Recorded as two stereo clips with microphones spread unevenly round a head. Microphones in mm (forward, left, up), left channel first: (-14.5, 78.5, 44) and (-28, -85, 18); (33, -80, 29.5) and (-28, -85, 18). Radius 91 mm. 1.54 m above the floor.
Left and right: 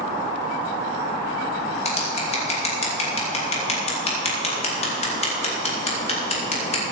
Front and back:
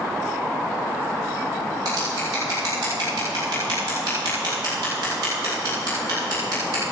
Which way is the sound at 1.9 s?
140° left.